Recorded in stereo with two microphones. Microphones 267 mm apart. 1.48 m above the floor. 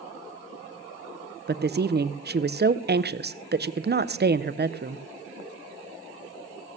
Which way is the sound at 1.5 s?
40° right (ahead or behind).